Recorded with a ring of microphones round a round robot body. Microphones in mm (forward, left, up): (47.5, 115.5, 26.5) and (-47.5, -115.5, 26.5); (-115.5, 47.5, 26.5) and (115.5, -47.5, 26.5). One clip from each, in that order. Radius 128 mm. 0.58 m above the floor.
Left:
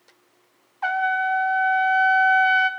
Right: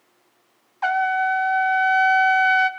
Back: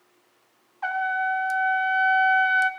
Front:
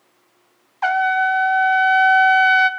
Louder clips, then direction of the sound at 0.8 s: Right 2 dB, front 8 dB; 50° right.